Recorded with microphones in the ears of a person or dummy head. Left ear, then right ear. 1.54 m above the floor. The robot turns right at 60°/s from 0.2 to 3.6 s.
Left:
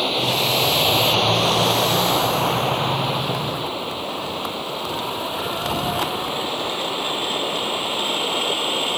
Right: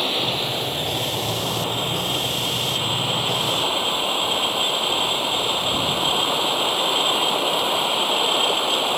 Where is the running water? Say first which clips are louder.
Left 2 dB; 5° left; by 9.0 s 155° right.